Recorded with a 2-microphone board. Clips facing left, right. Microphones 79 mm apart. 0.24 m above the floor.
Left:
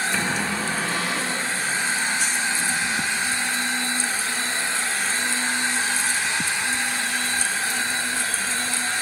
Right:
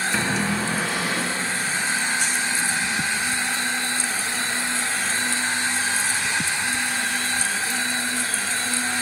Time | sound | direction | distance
0.1 | a cupboard door | 5° right (ahead or behind) | 2 m